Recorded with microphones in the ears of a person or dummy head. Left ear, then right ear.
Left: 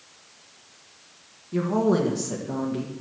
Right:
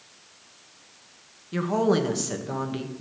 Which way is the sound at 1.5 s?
45° right (ahead or behind).